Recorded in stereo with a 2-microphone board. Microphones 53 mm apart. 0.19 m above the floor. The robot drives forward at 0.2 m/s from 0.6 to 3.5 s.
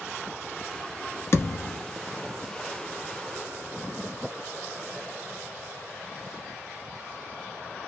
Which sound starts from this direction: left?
A thud, at 1.3 s.